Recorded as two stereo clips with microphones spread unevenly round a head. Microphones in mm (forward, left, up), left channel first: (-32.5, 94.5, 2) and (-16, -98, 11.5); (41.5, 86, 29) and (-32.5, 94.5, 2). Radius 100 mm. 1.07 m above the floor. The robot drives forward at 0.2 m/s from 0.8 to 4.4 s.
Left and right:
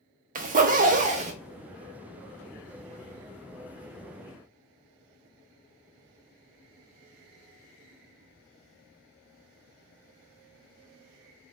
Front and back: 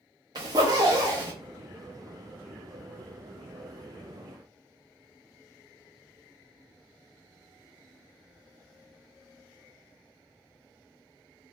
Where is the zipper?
140° right, 0.5 m; by 1.3 s 145° right, 0.6 m.